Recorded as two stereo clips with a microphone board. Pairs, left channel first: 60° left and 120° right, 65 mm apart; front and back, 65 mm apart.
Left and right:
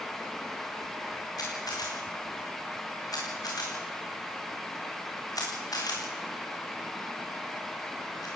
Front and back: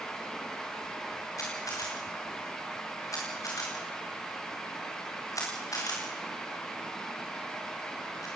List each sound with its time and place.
1.4 s a camera shutter: 35° left, 5 m